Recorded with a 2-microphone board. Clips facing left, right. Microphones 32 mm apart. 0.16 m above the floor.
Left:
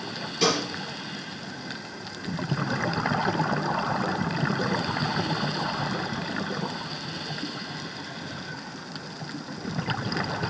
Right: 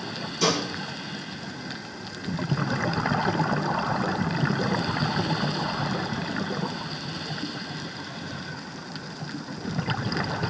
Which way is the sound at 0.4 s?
50° left (ahead or behind).